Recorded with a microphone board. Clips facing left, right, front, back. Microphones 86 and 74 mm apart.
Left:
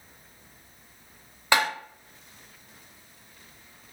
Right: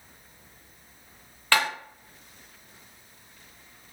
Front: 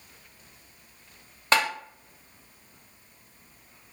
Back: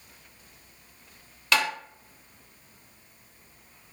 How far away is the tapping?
About 0.6 m.